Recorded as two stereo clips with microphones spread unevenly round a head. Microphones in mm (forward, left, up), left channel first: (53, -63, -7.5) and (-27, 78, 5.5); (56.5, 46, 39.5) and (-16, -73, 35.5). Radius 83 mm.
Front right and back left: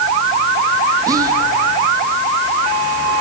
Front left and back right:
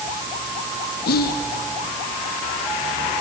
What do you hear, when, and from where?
1.1 s whispering: 50° left, 1.4 m